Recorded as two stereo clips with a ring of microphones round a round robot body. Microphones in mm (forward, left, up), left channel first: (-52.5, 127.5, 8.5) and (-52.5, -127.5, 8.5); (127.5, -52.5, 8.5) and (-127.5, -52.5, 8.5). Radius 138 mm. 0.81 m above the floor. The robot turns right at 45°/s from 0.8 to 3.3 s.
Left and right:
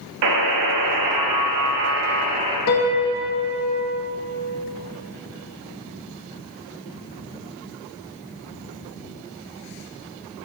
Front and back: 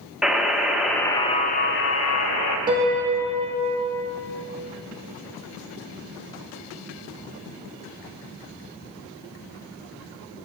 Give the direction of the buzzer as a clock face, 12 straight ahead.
3 o'clock.